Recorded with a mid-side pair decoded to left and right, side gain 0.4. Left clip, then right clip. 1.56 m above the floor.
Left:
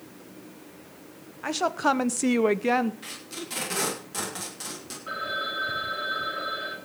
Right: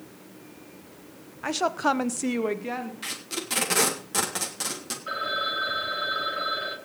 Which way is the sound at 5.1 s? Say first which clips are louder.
Right 2 dB; 30° right.